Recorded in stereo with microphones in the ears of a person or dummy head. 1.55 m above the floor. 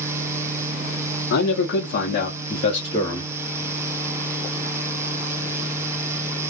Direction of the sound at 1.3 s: 85° left.